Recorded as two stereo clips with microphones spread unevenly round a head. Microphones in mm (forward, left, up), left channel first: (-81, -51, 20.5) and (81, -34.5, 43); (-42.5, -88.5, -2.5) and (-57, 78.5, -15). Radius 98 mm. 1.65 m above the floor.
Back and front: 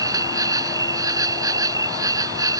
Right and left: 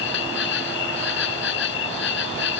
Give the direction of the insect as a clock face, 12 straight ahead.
2 o'clock.